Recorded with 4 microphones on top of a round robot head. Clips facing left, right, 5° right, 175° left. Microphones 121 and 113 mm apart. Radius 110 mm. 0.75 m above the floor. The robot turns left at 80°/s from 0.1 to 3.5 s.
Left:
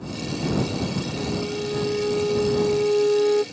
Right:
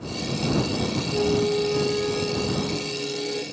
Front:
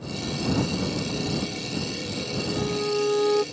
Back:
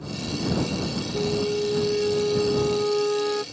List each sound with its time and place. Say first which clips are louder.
1.1 s a flute: right 6 dB, back 5 dB; 120° right; by 3.4 s 55° left